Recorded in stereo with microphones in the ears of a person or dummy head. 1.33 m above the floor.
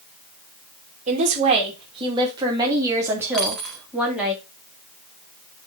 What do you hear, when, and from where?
1.1 s a woman speaking: 40° right (ahead or behind), 2.5 m; by 4.3 s 5° right (ahead or behind), 3.5 m
3.3 s a dropped coin: 5° left (ahead or behind), 0.6 m